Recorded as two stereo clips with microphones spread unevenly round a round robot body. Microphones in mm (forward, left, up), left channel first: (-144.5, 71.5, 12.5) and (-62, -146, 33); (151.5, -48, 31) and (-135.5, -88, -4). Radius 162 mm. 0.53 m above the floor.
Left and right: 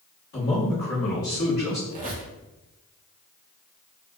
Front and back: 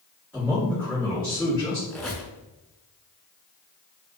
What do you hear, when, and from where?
0.3 s a man speaking: 110° left, 1.5 m
1.9 s a squeak: 70° right, 0.5 m